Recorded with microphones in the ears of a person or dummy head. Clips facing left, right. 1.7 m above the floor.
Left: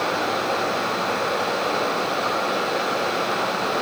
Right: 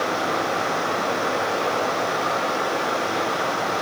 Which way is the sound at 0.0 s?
55° right (ahead or behind).